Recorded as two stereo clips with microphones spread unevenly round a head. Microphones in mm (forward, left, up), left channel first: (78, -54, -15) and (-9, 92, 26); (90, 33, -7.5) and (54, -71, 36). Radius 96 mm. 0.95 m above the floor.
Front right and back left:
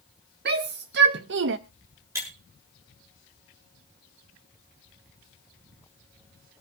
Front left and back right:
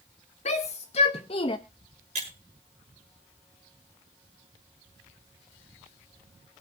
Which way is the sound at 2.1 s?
165° right.